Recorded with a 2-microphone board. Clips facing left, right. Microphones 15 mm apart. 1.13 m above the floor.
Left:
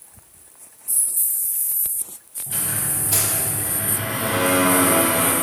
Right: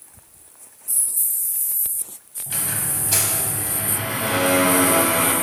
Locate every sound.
2.5 s a squeak: 30° right (ahead or behind), 1.3 m